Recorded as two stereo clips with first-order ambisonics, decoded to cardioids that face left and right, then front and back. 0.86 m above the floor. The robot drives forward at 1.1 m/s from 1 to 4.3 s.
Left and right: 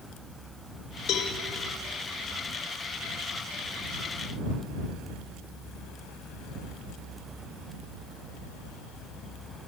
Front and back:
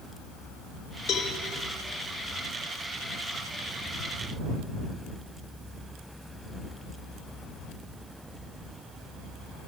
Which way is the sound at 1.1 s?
50° left.